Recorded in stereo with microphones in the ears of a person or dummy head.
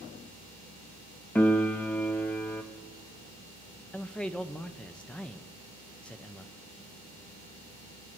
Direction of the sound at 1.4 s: 5° left (ahead or behind).